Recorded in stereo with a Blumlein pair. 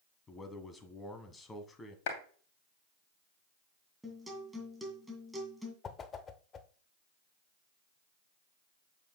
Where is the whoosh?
20° left, 0.8 m.